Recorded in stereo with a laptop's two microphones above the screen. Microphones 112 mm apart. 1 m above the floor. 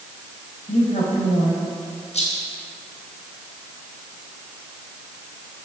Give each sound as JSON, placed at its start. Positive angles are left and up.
{"t": 0.7, "sound": "a woman speaking", "side_deg": 75, "distance_m": 5.5}
{"t": 2.1, "sound": "a rattle", "side_deg": 75, "distance_m": 4.5}